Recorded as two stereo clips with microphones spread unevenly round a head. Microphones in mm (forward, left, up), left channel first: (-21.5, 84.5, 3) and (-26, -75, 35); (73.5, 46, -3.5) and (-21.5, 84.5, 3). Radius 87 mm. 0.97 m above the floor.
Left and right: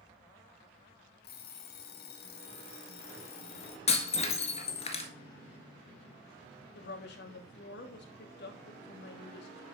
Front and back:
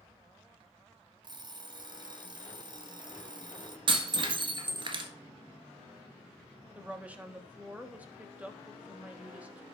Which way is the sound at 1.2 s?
115° left.